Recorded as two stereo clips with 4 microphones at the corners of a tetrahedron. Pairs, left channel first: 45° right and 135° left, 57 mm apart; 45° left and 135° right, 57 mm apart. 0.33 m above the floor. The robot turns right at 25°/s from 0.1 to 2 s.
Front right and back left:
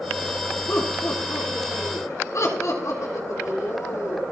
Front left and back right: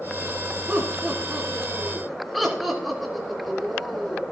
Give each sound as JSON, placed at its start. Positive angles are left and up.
{"t": 0.7, "sound": "laughter", "azimuth_deg": -80, "distance_m": 4.0}